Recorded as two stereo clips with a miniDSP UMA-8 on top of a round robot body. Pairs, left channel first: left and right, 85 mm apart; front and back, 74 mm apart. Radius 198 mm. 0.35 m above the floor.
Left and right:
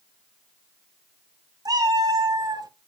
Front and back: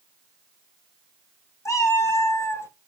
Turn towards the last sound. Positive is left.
turn(degrees=-55)